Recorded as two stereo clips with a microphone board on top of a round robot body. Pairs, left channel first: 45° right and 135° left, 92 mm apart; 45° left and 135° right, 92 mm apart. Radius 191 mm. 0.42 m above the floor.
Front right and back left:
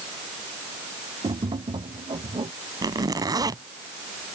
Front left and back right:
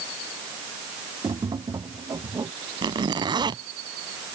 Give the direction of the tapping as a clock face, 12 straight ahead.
6 o'clock.